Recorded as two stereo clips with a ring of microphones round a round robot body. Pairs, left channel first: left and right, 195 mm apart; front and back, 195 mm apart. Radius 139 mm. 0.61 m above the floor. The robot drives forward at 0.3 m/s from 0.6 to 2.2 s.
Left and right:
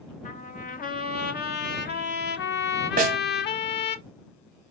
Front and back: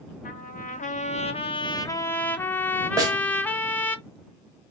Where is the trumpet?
45° left, 0.9 m; by 4.0 s 80° left, 0.7 m.